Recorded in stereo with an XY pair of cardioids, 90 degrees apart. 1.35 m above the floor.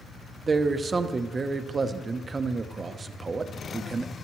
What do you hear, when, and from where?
0.5 s a man speaking: 35° right, 0.8 m